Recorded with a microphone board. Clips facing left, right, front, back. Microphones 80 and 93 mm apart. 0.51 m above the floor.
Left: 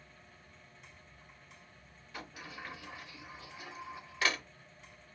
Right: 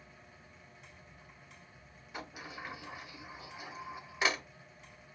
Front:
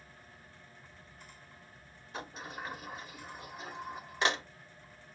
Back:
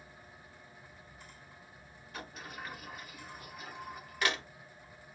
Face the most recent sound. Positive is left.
turn(degrees=-30)